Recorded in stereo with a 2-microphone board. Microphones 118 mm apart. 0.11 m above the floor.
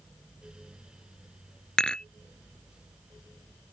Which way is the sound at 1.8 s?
5° left (ahead or behind).